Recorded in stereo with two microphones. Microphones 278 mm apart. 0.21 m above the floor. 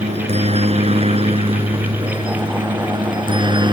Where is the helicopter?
25° right (ahead or behind); by 3.7 s 15° right (ahead or behind).